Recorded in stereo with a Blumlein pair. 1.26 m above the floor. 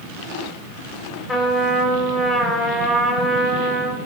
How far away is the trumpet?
About 3 m.